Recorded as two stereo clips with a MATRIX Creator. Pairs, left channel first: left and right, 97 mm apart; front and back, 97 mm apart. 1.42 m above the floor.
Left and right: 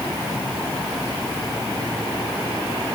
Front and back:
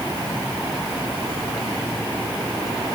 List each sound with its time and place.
Only background noise.